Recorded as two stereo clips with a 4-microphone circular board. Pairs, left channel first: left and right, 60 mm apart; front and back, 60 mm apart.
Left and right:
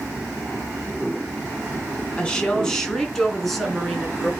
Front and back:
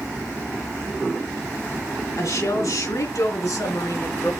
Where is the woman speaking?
20° left, 3 m; by 4.3 s straight ahead, 4 m.